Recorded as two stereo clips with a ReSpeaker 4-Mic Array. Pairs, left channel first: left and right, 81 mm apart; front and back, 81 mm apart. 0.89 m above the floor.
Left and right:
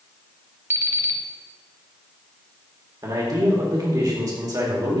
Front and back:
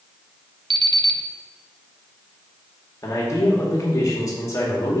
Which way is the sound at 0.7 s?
150° right.